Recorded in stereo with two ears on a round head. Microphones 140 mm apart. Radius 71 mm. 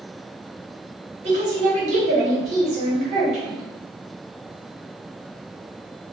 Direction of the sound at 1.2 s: 45° right (ahead or behind).